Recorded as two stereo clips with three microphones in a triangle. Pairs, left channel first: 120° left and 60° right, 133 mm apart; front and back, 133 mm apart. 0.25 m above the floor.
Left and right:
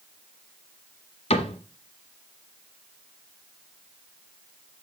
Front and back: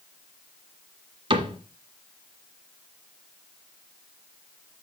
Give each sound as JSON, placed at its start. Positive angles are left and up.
{"t": 1.3, "sound": "a cupboard door", "azimuth_deg": 140, "distance_m": 1.4}